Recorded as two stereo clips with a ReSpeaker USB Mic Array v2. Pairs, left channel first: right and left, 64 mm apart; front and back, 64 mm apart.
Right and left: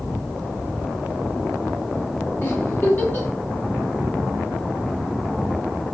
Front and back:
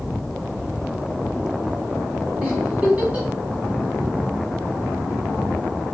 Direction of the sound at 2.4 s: 120° right.